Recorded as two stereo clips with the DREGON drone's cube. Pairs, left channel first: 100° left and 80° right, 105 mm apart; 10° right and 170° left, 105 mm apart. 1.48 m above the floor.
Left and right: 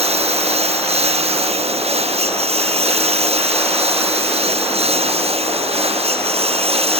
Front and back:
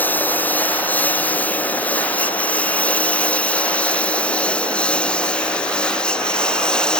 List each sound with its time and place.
0.0 s a lawn mower: 85° right; by 7.0 s 95° right